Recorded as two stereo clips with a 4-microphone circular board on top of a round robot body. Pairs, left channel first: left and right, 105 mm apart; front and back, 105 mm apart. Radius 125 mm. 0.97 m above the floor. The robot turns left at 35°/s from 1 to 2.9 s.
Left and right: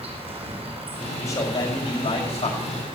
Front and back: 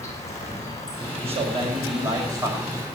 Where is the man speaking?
155° left, 5 m; by 3.0 s 100° left, 5 m.